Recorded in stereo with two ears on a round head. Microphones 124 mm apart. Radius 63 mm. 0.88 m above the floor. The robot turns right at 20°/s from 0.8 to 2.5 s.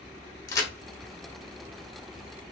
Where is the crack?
25° left (ahead or behind), 0.7 m.